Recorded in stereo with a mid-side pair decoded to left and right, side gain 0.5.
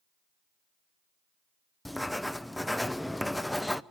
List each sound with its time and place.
1.9 s writing: 5° left, 0.5 m